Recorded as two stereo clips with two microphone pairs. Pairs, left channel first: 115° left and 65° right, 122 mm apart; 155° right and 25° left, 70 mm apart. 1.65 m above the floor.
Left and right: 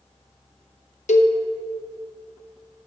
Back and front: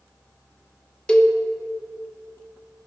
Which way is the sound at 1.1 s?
130° left.